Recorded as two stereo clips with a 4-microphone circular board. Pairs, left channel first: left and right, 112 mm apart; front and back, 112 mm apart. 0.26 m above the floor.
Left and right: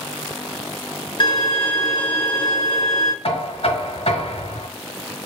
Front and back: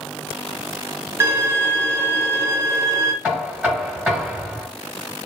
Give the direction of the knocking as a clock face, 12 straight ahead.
9 o'clock.